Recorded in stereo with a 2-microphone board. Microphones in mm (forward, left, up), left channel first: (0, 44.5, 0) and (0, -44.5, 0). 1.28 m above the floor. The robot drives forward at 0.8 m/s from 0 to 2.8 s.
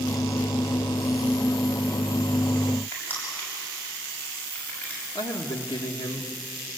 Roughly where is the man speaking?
Left.